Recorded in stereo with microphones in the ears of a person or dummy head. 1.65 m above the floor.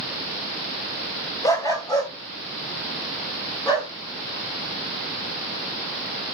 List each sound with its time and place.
1.4 s a dog barking: 15° left (ahead or behind), 2.5 m; by 3.9 s 20° left (ahead or behind), 6 m